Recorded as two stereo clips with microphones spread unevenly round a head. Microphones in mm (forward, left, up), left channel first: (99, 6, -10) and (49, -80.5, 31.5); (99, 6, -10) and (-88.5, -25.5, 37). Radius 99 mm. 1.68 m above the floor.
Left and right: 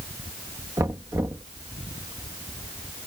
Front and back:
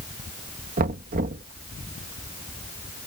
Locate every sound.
0.8 s knocking: 160° right